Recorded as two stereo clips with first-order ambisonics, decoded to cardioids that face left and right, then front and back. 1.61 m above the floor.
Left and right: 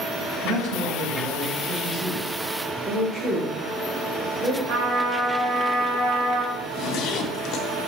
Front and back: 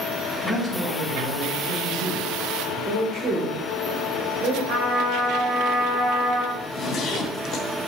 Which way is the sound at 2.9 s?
145° right.